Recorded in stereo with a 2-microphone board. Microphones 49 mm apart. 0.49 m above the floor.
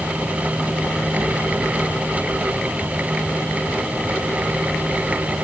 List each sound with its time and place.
Only background noise.